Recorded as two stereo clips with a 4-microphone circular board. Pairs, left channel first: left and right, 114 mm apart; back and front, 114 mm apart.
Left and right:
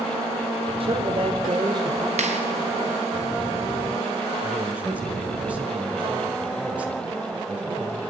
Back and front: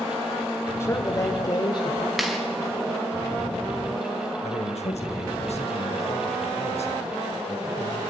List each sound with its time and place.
0.8 s a man speaking: 115° right, 2 m; by 2.1 s 140° right, 2.5 m
2.2 s a clap: 85° right, 3.5 m
4.4 s a man speaking: 170° right, 2.5 m